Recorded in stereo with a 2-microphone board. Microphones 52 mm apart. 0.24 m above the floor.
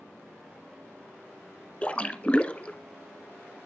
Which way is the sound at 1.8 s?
25° left (ahead or behind).